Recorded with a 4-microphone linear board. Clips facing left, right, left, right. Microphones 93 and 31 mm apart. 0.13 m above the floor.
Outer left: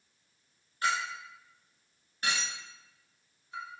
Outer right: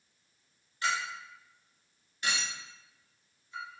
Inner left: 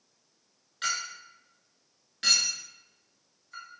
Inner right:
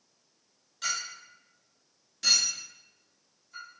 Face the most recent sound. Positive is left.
turn(degrees=45)  # may be behind; listen again after turning